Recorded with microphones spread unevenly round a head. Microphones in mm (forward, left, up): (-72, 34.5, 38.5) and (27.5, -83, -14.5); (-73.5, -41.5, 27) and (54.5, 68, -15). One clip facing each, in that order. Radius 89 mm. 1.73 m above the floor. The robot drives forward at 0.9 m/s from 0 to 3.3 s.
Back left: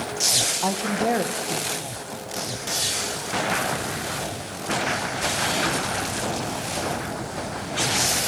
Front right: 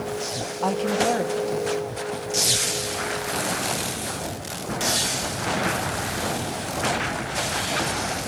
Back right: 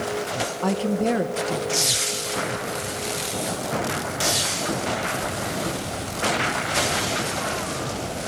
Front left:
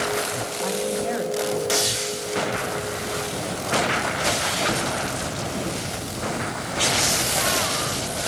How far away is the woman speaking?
About 1.1 m.